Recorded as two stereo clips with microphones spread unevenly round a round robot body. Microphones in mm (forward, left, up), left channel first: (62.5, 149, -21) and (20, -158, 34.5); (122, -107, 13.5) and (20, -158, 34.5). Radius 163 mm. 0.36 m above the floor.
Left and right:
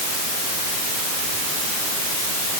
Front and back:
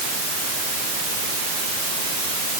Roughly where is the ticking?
No ticking in this recording.